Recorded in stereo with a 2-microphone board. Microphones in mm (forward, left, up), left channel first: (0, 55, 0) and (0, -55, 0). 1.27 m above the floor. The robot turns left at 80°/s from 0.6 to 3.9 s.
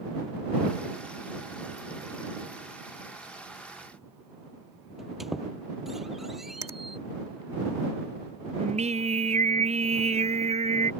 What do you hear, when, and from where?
5.0 s a squeak: centre (ahead or behind)
6.6 s a finger snap: 30° right (ahead or behind)
8.6 s singing: 75° right (ahead or behind)